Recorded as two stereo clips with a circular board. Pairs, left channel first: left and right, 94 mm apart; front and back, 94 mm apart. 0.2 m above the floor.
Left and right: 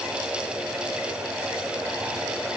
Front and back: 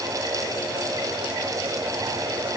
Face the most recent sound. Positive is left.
No sound to turn to.